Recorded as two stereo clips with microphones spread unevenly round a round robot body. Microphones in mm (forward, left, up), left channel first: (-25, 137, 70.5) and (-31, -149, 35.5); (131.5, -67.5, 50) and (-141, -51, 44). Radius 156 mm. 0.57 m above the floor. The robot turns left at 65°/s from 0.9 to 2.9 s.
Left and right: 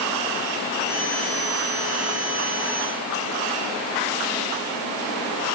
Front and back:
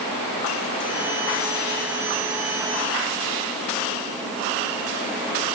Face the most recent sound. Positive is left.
No sound to turn to.